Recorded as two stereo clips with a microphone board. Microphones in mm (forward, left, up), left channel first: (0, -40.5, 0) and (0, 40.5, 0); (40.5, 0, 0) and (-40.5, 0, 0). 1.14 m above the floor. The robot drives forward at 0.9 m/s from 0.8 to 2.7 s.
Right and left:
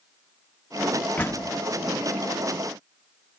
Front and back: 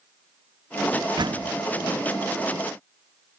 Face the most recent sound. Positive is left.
turn(degrees=-170)